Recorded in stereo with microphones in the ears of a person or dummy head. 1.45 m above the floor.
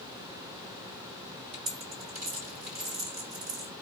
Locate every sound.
1.5 s a dropped coin: 35° right (ahead or behind), 3 m